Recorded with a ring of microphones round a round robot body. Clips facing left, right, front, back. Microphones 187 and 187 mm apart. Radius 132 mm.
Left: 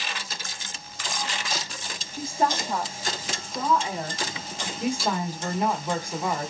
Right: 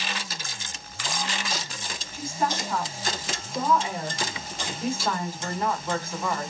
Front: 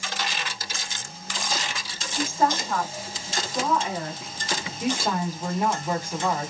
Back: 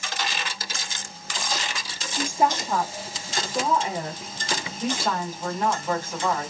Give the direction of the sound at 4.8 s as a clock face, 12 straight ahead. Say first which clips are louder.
Left 2 dB, front 2 dB; 10 o'clock.